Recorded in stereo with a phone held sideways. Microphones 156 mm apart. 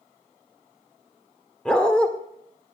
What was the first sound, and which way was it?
A dog barking, 5° left (ahead or behind).